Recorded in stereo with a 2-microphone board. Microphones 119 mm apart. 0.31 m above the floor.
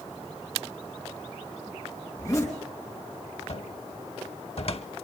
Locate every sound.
2.1 s a zipper: 25° left (ahead or behind), 4 m
3.5 s a cupboard door: 55° left (ahead or behind), 0.9 m